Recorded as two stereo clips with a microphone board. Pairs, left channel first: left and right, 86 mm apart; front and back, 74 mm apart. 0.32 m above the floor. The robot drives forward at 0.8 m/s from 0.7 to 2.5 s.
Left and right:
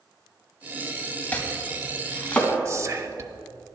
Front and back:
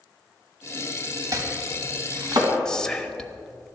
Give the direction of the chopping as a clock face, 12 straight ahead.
7 o'clock.